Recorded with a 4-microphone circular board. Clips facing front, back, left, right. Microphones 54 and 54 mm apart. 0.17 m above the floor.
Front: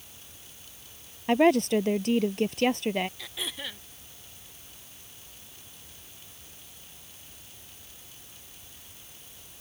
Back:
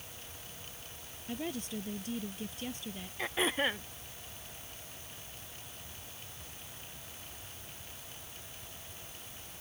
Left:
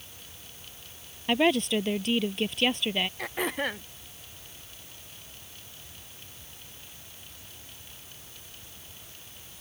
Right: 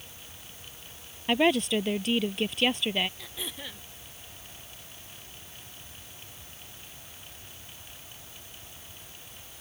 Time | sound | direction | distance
1.3 | a woman speaking | straight ahead | ?
3.2 | throat clearing | 125° left | ?